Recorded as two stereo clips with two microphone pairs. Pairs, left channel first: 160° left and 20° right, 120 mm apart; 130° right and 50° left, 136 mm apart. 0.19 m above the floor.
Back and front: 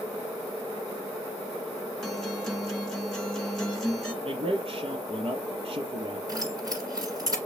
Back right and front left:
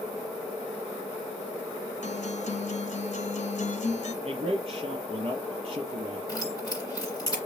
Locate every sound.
2.0 s a guitar: 115° right, 1.3 m
4.2 s a man speaking: 5° left, 3 m
6.3 s keys jangling: 75° right, 2 m